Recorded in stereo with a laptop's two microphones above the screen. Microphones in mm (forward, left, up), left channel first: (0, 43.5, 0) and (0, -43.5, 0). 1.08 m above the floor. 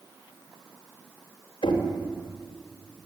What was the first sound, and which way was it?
Knocking, 75° left (ahead or behind).